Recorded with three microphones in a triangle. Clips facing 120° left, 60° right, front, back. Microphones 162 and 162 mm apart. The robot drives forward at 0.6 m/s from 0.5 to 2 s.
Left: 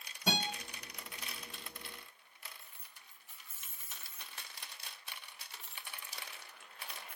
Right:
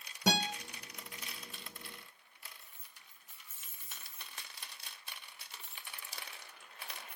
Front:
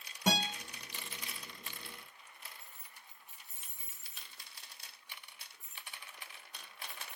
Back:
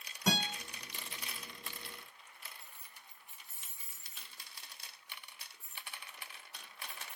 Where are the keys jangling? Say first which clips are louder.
Left 2 dB, even; 25° left, 0.8 m.